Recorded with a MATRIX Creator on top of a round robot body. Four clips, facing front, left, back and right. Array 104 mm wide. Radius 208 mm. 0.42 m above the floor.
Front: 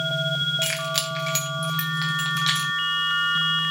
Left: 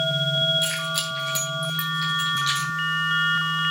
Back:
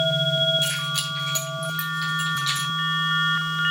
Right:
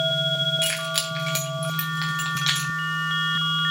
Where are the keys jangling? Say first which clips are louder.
Even, front 1 dB; 35° right, 3 m; by 2.7 s 55° right, 3.5 m.